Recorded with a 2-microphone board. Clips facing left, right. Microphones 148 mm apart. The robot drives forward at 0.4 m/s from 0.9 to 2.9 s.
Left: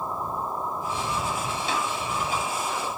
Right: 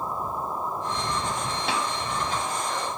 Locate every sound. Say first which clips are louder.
1.7 s tapping: right 1 dB; 65° right (ahead or behind), 2.0 m